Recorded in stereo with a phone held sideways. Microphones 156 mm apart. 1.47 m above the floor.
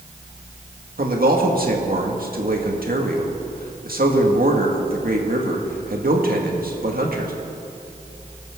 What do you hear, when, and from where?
1.0 s a man speaking: 70° right (ahead or behind), 2.0 m